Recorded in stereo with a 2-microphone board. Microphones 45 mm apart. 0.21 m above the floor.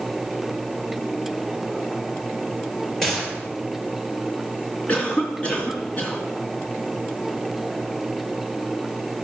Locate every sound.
3.0 s a gunshot: 5° left (ahead or behind), 4.5 m
4.9 s a cough: 25° left (ahead or behind), 3 m